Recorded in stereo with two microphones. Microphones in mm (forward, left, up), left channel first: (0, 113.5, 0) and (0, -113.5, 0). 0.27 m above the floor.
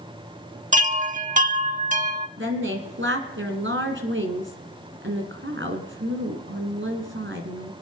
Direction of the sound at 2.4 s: 65° right (ahead or behind).